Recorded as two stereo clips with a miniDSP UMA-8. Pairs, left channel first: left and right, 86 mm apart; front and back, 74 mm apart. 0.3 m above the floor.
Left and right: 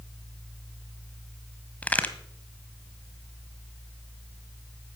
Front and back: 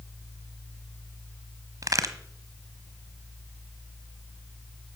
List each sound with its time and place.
1.8 s a crack: 160° left, 1.4 m